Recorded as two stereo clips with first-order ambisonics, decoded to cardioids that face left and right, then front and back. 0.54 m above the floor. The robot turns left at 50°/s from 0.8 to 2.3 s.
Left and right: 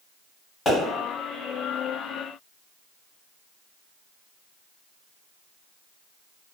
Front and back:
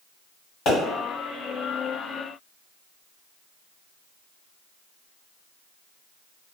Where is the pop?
30° left, 1.7 m.